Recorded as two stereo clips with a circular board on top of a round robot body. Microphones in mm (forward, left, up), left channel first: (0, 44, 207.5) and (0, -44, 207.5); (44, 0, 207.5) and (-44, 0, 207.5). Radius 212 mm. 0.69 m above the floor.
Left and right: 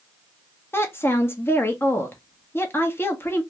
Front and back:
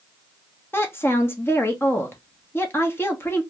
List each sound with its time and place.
0.7 s a woman speaking: 45° left, 1.0 m